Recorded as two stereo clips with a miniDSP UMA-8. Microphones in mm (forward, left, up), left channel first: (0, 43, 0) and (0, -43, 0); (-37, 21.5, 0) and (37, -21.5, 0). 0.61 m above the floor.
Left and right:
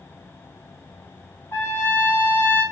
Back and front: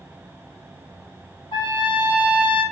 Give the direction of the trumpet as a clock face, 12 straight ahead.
7 o'clock.